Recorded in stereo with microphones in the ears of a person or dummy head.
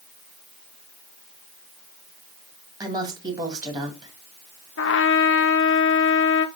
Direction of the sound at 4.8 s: 55° left (ahead or behind).